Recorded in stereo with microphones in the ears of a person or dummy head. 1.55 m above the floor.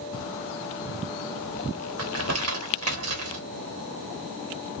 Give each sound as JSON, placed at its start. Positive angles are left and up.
{"t": 2.0, "sound": "crumpling", "side_deg": -75, "distance_m": 0.9}